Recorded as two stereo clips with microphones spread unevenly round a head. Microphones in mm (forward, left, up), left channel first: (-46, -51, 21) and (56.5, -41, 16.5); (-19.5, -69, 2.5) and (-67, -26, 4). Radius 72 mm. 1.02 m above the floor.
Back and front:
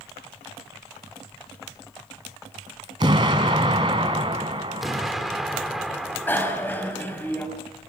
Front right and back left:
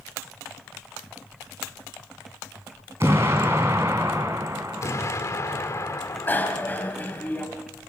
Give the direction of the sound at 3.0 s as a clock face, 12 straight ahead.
10 o'clock.